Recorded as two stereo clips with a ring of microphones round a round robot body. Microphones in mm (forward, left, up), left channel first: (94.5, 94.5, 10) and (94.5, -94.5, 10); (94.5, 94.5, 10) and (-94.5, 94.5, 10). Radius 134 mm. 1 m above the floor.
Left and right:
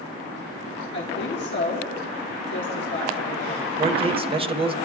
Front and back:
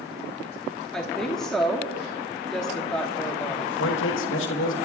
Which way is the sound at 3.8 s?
30° right.